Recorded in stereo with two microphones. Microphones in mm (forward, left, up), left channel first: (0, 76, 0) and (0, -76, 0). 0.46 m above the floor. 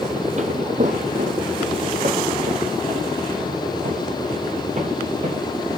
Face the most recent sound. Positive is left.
turn(degrees=-50)  # may be behind; listen again after turning